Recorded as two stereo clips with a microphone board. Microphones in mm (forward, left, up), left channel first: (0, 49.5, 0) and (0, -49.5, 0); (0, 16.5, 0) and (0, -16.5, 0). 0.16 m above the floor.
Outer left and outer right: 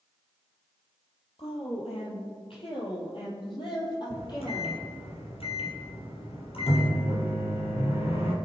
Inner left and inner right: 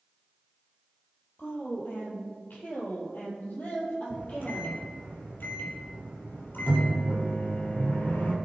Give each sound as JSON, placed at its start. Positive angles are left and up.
{"t": 1.4, "sound": "a woman speaking", "side_deg": 70, "distance_m": 5.5}
{"t": 4.1, "sound": "a microwave", "side_deg": 70, "distance_m": 3.5}